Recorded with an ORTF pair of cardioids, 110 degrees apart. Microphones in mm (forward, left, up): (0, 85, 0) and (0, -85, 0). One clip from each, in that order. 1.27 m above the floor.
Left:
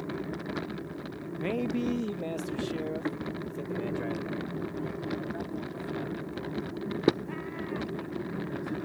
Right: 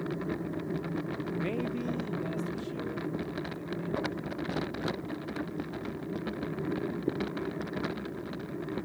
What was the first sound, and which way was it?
A man speaking, 5° left.